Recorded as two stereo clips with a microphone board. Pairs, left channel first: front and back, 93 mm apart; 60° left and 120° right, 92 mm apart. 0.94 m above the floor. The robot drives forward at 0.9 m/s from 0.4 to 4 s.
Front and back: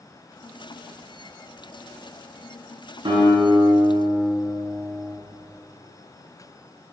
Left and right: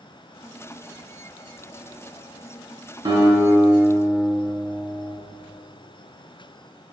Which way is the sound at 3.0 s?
150° right.